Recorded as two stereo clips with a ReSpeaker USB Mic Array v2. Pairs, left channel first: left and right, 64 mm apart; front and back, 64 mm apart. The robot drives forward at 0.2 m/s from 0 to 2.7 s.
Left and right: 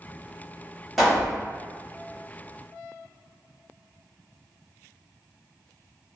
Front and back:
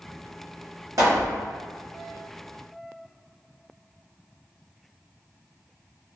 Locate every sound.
1.0 s a pop: straight behind, 1.2 m